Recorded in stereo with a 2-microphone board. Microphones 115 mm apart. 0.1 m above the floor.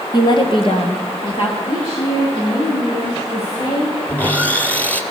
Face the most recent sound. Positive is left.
turn(degrees=10)  # may be behind; listen again after turning